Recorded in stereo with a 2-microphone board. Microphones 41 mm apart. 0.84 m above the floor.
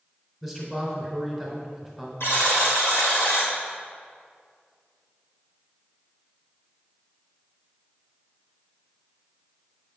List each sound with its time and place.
0.4 s a man speaking: 5° left (ahead or behind), 3 m
2.2 s a buzzer: 75° left (ahead or behind), 2 m